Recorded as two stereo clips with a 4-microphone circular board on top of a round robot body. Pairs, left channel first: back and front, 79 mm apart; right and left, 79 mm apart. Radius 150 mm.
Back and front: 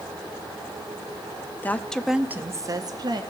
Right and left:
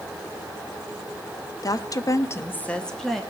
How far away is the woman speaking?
About 1.0 m.